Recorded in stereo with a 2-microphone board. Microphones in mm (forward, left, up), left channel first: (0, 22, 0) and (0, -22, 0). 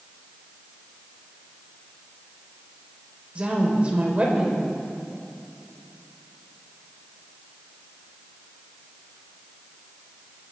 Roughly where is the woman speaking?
Right.